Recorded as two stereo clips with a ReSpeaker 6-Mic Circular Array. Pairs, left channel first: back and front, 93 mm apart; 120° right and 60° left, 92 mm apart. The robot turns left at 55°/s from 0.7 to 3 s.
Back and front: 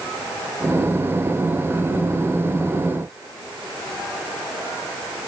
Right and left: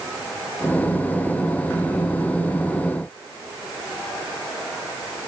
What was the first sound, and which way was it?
Only background noise.